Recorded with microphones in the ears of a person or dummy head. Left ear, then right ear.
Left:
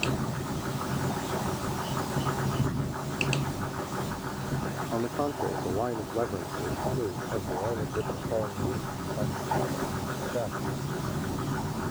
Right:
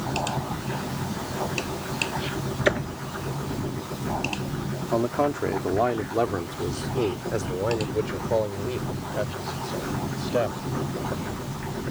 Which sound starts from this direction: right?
A man speaking, at 4.9 s.